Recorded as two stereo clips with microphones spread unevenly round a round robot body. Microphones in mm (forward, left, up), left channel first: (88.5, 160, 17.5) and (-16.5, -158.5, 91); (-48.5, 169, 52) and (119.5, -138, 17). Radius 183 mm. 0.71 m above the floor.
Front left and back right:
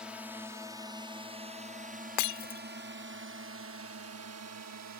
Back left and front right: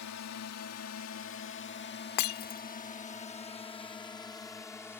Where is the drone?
155° left; by 5.0 s 155° right.